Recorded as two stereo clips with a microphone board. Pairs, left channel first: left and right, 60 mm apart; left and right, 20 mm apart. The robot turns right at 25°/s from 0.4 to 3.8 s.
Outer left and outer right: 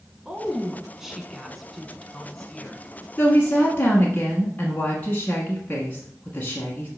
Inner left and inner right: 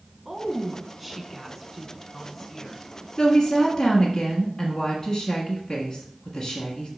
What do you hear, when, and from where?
0.2 s a woman speaking: 10° right (ahead or behind), 1.0 m; by 2.8 s 10° left (ahead or behind), 1.0 m
3.2 s a woman speaking: 25° left (ahead or behind), 1.5 m